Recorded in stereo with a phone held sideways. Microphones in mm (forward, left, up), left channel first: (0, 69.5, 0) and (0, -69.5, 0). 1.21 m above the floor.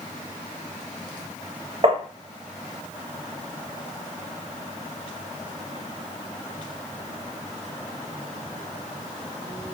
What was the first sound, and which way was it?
Tapping, 40° right (ahead or behind).